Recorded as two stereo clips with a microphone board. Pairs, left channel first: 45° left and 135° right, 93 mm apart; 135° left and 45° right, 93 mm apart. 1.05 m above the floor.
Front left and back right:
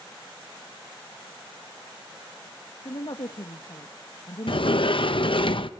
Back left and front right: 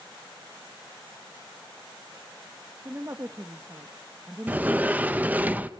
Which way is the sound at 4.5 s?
25° left.